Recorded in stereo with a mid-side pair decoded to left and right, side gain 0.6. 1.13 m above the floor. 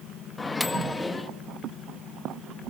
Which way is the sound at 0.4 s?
20° left.